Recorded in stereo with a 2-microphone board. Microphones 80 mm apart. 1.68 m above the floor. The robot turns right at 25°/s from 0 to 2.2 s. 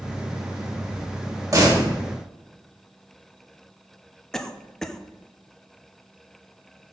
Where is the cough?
10° left (ahead or behind), 0.7 m.